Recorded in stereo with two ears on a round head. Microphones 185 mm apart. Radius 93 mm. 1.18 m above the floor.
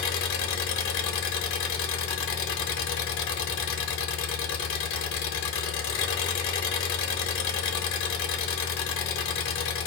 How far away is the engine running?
About 0.7 m.